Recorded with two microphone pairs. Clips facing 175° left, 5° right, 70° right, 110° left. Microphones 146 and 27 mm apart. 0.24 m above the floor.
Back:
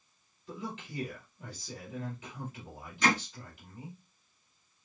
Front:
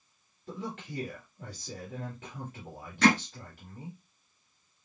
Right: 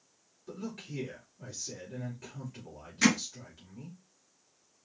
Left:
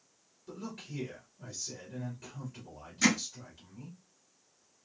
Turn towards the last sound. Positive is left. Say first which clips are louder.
# front 6 dB, right 2 dB
turn(degrees=-10)